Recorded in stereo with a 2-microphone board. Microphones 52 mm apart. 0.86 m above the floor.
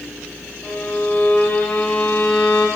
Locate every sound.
0.6 s a violin: 20° left (ahead or behind), 2.5 m